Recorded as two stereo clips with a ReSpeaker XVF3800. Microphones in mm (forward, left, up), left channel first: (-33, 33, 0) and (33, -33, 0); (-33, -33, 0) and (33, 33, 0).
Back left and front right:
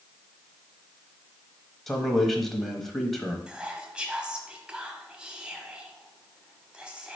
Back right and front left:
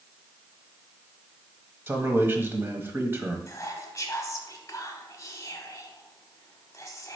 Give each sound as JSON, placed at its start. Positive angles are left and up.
{"t": 1.9, "sound": "a man speaking", "azimuth_deg": 50, "distance_m": 1.0}
{"t": 3.5, "sound": "whispering", "azimuth_deg": -120, "distance_m": 1.1}